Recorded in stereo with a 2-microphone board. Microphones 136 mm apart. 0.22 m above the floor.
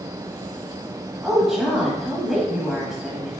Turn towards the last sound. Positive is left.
turn(degrees=-5)  # may be behind; listen again after turning